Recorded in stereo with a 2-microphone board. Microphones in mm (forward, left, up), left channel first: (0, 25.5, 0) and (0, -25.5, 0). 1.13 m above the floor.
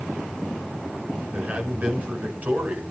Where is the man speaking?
30° right (ahead or behind), 5.5 m.